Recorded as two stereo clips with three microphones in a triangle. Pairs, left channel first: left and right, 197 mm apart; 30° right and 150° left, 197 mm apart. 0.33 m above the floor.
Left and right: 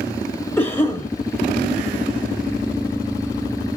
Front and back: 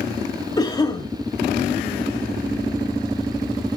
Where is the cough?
20° left, 1.9 m.